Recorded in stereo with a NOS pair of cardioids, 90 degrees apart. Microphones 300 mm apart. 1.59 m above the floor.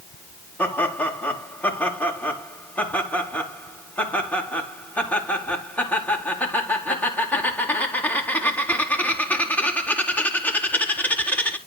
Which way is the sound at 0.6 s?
5° left.